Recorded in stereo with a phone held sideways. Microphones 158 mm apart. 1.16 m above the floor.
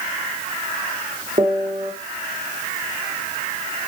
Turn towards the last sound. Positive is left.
turn(degrees=-40)  # may be behind; listen again after turning